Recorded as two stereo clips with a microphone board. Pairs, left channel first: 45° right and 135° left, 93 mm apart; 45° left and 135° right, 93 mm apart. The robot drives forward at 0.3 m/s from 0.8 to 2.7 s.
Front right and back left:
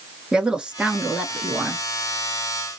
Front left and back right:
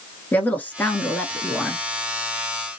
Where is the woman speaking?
70° left, 1.1 m; by 1.8 s 115° left, 1.1 m.